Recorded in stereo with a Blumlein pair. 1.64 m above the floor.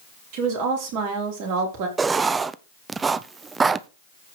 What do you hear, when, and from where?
0.3 s a woman speaking: 45° right, 4.5 m
2.0 s writing: 15° right, 0.5 m